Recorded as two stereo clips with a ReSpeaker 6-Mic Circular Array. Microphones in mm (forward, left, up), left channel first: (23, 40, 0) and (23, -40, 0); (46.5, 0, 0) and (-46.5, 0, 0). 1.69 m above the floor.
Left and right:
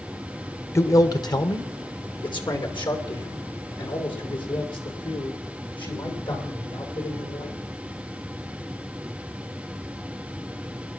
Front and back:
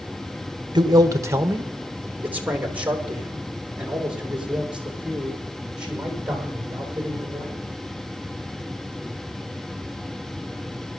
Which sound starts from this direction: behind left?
A man speaking, at 0.8 s.